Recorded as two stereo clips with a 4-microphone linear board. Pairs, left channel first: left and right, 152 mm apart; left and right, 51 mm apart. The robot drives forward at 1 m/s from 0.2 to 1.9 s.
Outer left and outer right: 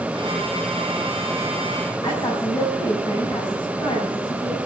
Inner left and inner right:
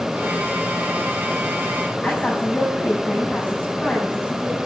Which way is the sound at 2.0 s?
30° left (ahead or behind).